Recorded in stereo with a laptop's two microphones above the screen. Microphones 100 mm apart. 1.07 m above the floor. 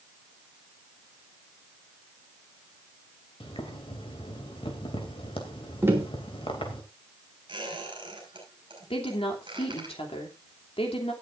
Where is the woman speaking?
70° left (ahead or behind), 2.5 m.